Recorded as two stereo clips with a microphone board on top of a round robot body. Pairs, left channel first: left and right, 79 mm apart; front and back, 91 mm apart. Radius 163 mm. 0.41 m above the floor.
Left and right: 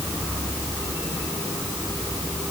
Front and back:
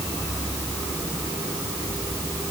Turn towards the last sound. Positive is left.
No sound to turn to.